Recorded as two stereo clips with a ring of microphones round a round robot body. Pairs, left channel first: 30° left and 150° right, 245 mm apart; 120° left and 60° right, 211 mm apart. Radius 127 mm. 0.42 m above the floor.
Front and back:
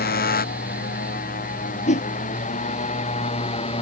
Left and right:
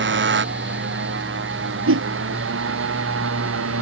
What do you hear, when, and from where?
0.0 s a motorcycle: 25° right; by 3.8 s 40° right
1.9 s a whoosh: 35° right